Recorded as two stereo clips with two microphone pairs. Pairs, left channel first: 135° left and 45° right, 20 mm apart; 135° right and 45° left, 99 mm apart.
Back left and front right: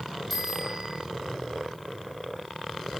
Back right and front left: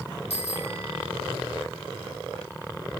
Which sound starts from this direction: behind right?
A bicycle bell, at 0.3 s.